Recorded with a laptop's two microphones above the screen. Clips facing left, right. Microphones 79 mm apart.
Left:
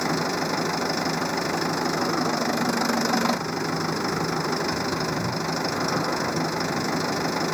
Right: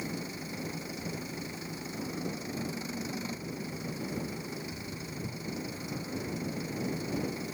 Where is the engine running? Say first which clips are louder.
Left 14 dB; 80° left.